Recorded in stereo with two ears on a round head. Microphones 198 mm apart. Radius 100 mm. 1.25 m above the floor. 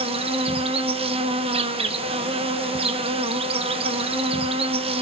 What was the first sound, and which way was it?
An insect, 25° right (ahead or behind).